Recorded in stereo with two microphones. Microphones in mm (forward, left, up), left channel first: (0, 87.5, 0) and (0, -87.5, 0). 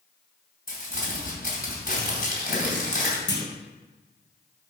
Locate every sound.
0.7 s crumpling: 60° left (ahead or behind), 2.5 m
3.3 s a clunk: 75° left (ahead or behind), 1.1 m